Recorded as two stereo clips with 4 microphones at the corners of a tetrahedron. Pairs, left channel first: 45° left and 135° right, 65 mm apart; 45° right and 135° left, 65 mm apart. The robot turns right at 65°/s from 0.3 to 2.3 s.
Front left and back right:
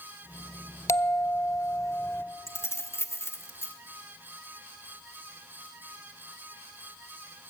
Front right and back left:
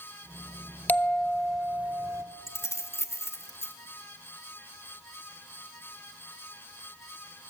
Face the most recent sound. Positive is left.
turn(degrees=0)